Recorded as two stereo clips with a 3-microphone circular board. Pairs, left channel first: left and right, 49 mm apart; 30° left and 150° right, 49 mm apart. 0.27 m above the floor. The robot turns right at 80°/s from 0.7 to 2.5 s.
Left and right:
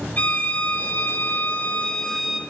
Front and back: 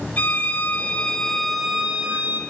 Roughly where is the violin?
Ahead left.